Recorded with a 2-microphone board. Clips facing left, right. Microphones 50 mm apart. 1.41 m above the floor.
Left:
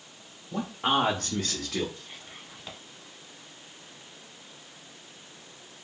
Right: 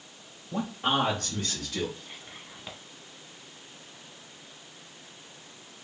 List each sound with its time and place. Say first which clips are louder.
0.5 s a man speaking: left 1 dB; centre (ahead or behind), 0.9 m; by 1.9 s 80° left, 1.0 m
2.0 s whispering: even; centre (ahead or behind), 1.0 m